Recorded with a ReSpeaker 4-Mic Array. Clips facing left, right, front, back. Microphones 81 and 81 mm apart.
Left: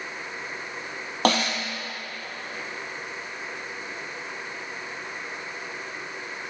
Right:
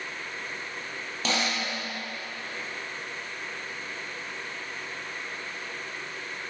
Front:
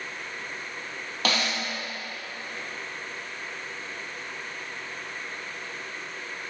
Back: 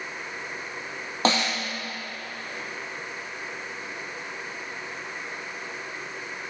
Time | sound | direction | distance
1.2 | a snare drum | 120° left | 2 m